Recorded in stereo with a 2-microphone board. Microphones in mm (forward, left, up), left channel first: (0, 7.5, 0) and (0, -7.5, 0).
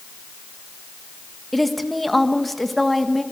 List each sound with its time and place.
1.5 s a woman speaking: 5° left (ahead or behind), 1.5 m